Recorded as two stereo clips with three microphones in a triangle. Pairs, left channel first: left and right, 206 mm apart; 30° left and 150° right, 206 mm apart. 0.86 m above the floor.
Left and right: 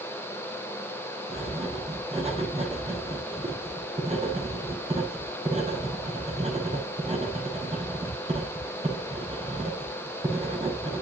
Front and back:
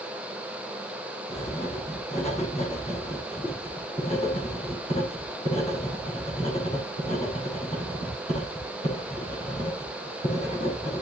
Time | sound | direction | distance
1.3 | writing | 30° right | 6 m